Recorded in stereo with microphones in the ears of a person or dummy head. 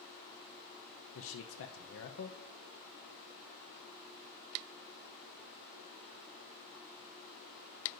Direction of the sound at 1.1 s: 80° left.